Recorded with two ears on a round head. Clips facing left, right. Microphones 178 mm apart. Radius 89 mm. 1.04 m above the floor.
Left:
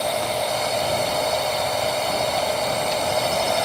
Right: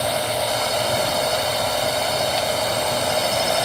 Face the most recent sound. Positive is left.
turn(degrees=-5)  # may be behind; listen again after turning